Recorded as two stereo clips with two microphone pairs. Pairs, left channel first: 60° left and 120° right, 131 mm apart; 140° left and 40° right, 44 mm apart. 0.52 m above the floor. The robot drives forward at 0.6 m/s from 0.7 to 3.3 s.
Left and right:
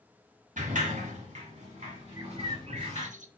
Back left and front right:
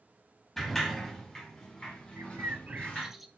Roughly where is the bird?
Ahead right.